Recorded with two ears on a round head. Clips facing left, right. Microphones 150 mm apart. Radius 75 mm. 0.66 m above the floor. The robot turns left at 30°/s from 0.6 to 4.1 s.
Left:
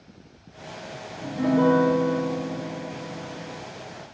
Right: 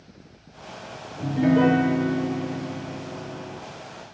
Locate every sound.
1.2 s a piano: 75° right, 4 m; by 3.6 s 145° right, 4 m